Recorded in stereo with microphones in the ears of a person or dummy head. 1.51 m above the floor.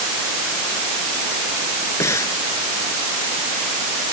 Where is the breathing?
15° left (ahead or behind).